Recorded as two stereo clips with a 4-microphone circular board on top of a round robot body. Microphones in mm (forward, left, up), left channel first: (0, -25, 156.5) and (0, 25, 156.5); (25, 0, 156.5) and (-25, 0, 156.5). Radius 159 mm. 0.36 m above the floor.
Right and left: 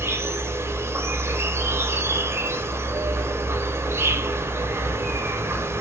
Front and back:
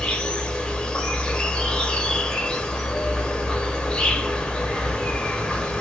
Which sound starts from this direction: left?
An insect, at 0.0 s.